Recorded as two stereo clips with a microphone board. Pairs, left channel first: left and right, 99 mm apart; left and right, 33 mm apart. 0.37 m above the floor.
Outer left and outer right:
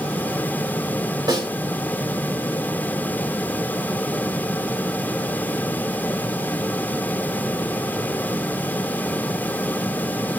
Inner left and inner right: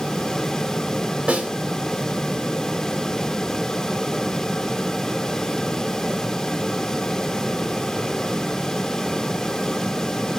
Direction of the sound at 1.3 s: 50° right (ahead or behind).